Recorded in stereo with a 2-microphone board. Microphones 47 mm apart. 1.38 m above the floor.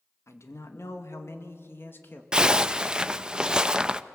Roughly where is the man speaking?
Left.